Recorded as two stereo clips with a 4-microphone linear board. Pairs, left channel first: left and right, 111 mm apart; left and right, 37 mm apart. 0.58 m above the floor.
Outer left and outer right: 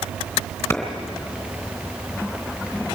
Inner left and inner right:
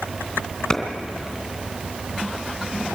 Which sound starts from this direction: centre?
A clap, at 0.7 s.